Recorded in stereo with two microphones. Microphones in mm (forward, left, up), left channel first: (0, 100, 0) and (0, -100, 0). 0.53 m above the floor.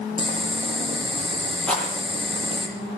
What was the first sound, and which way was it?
Boiling, 25° right (ahead or behind).